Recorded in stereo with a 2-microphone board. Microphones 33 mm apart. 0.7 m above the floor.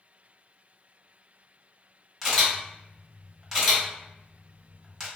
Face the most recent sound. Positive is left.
turn(degrees=0)  # may be behind; listen again after turning